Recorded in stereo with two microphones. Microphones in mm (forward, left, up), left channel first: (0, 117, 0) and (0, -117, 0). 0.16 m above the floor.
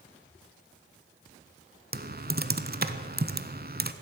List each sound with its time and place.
1.9 s typing on a keyboard: 40° right (ahead or behind), 0.7 m